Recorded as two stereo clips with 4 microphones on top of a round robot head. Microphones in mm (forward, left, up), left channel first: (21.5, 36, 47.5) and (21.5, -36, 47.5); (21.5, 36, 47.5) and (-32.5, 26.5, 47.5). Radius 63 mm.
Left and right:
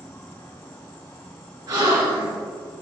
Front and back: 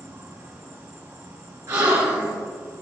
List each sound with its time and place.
0.0 s an insect: 155° left, 2.5 m
1.7 s a gasp: 130° right, 3.5 m